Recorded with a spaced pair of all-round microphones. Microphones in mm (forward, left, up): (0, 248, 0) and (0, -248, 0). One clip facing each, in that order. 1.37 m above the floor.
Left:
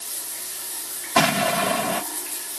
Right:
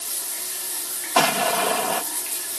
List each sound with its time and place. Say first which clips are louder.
1.1 s an explosion: left 1 dB; 40° left (ahead or behind)